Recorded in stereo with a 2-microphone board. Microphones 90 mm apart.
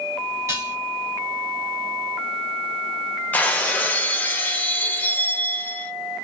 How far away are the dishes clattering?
About 1.2 m.